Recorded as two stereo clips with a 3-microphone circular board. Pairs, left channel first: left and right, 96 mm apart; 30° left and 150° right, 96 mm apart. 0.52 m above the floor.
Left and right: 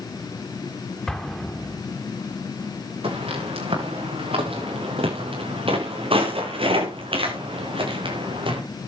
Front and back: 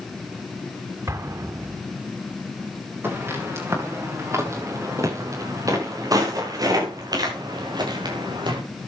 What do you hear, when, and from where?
1.1 s an explosion: 170° left, 1.5 m
3.0 s footsteps: 85° right, 7 m; by 8.6 s 115° right, 6.5 m